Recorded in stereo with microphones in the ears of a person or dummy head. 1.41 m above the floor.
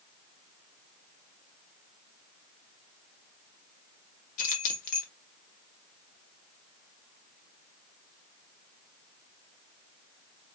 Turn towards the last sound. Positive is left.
turn(degrees=45)  # may be behind; listen again after turning